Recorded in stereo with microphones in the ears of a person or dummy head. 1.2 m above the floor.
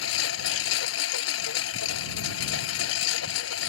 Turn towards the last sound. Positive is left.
turn(degrees=80)